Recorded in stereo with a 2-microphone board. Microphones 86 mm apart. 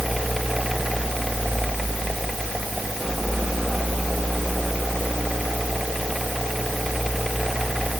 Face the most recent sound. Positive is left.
No sound to turn to.